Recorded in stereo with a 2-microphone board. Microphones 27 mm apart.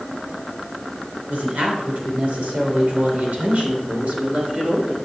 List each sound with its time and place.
1.3 s a woman speaking: 75° right (ahead or behind), 4 m; by 5.0 s 60° right (ahead or behind), 4 m